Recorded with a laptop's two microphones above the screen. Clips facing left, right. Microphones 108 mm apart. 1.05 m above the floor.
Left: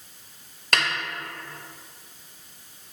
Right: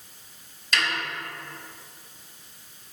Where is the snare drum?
60° left (ahead or behind), 1.3 m.